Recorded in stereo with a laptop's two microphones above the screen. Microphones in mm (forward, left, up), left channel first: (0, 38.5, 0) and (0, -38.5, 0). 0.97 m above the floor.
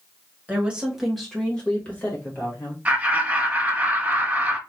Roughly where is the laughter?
Centre.